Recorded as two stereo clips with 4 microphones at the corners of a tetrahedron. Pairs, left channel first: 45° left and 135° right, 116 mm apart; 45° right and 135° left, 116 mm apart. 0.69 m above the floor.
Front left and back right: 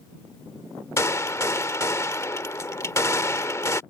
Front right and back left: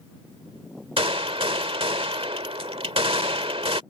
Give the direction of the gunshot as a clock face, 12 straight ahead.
8 o'clock.